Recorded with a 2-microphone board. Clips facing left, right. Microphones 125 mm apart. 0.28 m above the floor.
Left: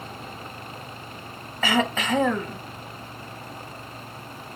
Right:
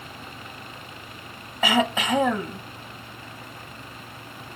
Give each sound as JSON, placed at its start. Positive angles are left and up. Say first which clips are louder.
{"t": 1.6, "sound": "throat clearing", "louder": "right 1 dB", "side_deg": -15, "distance_m": 0.6}